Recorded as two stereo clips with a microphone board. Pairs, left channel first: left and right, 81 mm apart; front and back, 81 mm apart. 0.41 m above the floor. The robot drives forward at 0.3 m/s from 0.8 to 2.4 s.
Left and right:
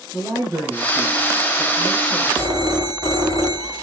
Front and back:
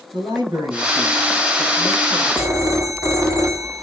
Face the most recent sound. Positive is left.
turn(degrees=-130)